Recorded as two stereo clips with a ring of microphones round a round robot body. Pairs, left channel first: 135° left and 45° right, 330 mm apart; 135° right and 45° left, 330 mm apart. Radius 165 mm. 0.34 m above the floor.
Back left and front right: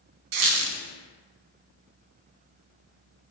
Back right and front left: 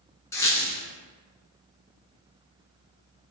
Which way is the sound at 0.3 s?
55° right.